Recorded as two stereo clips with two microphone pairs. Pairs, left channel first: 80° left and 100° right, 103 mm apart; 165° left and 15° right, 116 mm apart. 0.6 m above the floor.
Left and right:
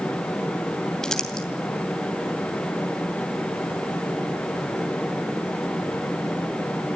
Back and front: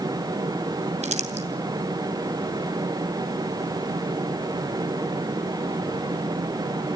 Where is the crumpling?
Straight ahead, 2.5 m.